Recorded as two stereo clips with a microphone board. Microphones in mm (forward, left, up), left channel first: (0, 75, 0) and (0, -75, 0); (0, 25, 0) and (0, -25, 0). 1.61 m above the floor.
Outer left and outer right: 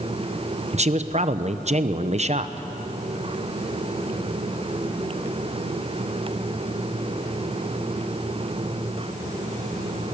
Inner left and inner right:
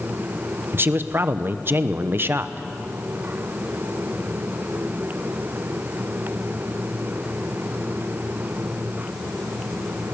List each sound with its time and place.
0.7 s a man speaking: 45° right (ahead or behind), 0.9 m